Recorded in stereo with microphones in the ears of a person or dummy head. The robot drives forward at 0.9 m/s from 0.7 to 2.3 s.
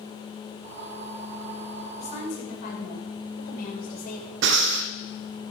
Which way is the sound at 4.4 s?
60° right (ahead or behind).